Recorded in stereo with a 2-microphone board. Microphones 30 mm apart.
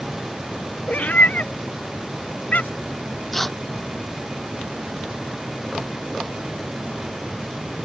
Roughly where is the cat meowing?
Left.